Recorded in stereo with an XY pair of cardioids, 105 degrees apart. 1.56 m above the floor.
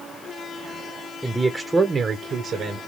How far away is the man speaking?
About 0.8 m.